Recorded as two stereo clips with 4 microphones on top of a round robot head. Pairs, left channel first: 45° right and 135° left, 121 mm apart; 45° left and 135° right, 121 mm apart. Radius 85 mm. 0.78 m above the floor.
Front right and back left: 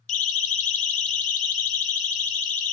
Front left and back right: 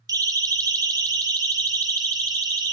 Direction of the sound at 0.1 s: 70° right.